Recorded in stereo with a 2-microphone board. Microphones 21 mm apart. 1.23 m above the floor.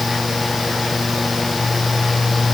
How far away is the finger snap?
No finger snap in this recording.